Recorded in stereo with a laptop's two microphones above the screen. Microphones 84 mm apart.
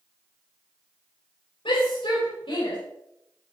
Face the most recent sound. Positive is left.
turn(degrees=85)